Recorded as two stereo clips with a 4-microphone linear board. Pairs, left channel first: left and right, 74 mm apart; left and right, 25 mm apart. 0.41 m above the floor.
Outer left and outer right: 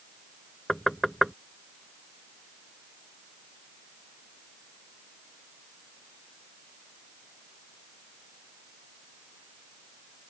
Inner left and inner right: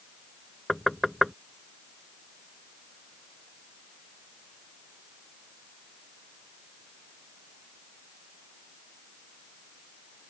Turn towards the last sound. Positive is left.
turn(degrees=0)  # may be behind; listen again after turning